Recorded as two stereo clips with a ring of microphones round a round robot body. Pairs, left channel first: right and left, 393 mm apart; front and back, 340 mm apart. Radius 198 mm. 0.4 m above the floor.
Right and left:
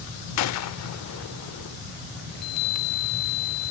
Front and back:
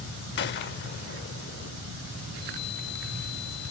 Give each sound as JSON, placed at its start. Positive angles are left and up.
{"t": 0.4, "sound": "a gunshot", "azimuth_deg": -55}
{"t": 2.3, "sound": "a chime", "azimuth_deg": -65}